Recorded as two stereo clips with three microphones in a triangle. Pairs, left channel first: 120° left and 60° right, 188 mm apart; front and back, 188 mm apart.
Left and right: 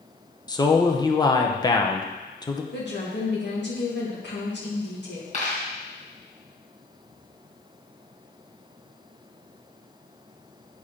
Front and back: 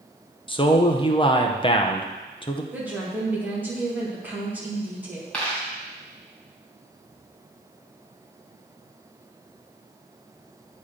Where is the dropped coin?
85° left, 2.5 m.